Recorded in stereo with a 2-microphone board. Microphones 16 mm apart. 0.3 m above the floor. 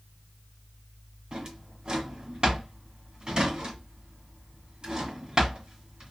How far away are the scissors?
I don't hear scissors.